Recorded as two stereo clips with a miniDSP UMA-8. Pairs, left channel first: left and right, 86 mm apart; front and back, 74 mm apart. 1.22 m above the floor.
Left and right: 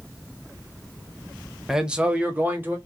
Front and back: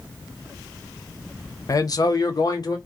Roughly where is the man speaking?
Ahead.